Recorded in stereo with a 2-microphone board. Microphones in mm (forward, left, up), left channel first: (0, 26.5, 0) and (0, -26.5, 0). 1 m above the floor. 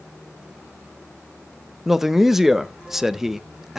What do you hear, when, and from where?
1.9 s a man speaking: 5° right (ahead or behind), 0.6 m